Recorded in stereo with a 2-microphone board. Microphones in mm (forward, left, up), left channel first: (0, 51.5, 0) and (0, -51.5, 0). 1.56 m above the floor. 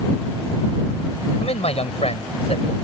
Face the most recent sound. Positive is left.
turn(degrees=85)